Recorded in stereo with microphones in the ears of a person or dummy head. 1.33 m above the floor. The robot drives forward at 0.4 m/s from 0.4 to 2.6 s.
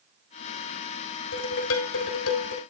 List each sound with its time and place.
1.3 s dishes clattering: 80° left, 3 m; by 2.6 s 75° left (ahead or behind), 3 m